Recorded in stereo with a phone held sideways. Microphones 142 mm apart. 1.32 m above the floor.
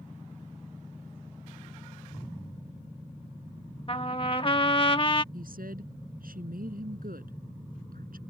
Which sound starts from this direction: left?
A trumpet, at 3.9 s.